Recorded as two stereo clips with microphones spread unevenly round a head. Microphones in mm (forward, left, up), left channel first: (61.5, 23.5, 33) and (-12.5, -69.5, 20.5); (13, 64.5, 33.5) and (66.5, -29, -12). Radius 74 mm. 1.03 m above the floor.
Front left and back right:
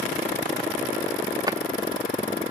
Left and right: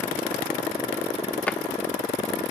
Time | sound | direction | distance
1.5 | a drawer | 165° left | 0.5 m